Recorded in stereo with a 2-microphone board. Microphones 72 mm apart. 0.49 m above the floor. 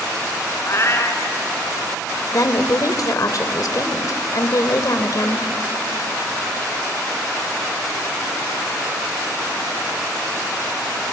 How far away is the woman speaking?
About 1.6 m.